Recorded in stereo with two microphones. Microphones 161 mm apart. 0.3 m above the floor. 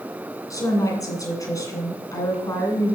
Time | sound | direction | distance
0.5 | a woman speaking | 20° left (ahead or behind) | 2.5 m